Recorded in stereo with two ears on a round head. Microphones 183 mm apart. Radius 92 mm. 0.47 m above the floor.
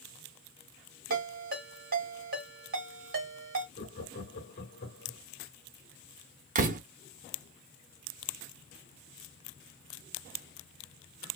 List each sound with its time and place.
1.1 s a ringtone: 50° right (ahead or behind), 2.5 m
3.8 s laughter: 25° left (ahead or behind), 1.6 m
6.5 s a door slam: 40° right (ahead or behind), 0.8 m